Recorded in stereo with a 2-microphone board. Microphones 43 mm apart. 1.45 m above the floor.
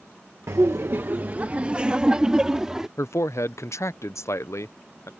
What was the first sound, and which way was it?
Laughter, 80° right.